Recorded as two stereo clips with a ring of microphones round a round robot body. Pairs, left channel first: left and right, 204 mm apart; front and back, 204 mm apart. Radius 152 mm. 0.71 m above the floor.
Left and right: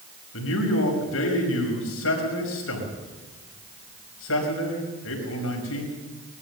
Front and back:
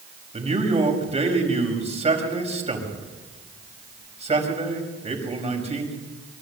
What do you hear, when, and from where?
0.3 s a man speaking: 120° left, 5.5 m